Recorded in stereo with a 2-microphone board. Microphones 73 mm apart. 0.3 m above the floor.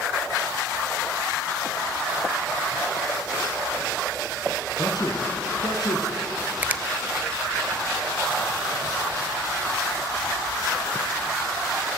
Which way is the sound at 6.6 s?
25° right (ahead or behind).